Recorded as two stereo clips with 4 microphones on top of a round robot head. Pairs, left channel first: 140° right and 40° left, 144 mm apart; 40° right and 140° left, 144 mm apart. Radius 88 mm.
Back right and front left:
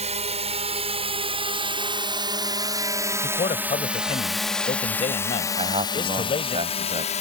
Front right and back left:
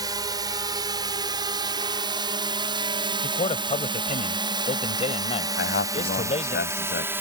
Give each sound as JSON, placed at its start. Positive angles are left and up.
{"t": 0.0, "sound": "a drone", "azimuth_deg": 80}
{"t": 3.2, "sound": "a man speaking", "azimuth_deg": -90}
{"t": 5.6, "sound": "a man speaking", "azimuth_deg": -20}